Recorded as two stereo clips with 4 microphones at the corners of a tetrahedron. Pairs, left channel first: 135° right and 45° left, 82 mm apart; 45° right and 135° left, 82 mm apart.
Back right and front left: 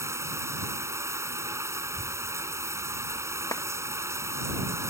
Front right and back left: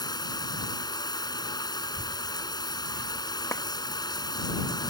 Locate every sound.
0.0 s running water: 10° right
1.8 s a child speaking: 100° left
3.5 s a clap: 95° right